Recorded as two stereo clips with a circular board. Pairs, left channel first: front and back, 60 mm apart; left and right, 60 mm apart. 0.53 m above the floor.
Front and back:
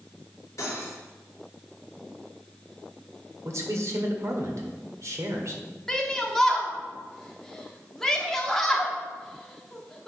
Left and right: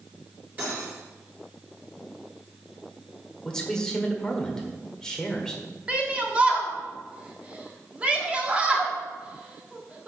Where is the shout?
65° right, 1.2 m.